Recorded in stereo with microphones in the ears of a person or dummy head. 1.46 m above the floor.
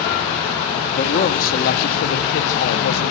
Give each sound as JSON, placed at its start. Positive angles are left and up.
{"t": 0.9, "sound": "a man speaking", "side_deg": 45, "distance_m": 2.5}